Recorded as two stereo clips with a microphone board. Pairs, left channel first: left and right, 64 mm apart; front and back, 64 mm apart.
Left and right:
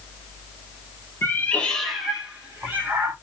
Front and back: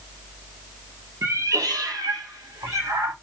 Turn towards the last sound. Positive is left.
turn(degrees=-150)